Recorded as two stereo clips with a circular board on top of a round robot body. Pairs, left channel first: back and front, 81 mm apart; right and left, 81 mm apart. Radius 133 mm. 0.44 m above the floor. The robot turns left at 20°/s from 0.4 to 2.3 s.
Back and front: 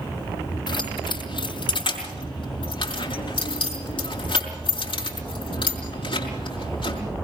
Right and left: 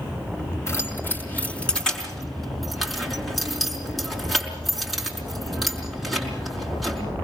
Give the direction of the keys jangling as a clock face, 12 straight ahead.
5 o'clock.